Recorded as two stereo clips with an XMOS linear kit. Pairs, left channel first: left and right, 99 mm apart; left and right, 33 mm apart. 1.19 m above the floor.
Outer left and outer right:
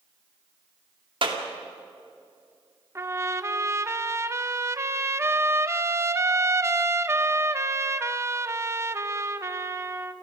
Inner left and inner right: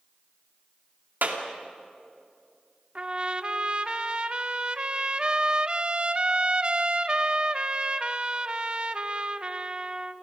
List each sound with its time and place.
1.2 s a clap: 60° right (ahead or behind), 2 m
3.0 s a trumpet: 30° right (ahead or behind), 0.8 m